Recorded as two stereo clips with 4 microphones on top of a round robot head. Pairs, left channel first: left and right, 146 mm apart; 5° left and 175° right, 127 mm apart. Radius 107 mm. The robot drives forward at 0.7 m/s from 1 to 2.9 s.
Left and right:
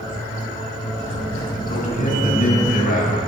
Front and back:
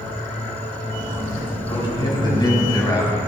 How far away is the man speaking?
About 5.5 m.